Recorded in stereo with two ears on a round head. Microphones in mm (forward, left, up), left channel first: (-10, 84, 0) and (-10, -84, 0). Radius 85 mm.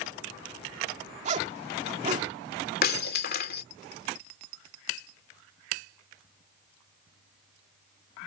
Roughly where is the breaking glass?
Left.